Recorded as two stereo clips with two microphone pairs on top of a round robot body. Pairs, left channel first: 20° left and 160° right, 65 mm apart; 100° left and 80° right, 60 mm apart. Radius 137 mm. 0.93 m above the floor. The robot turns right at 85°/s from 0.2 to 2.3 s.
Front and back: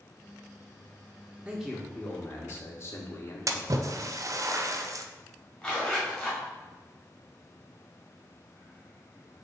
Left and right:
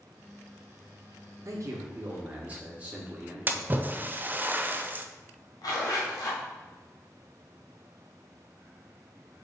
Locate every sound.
1.4 s a man speaking: 90° right, 1.3 m; by 3.9 s 20° right, 1.3 m
3.5 s a splash: 135° right, 0.5 m
5.6 s a zipper: 100° left, 1.5 m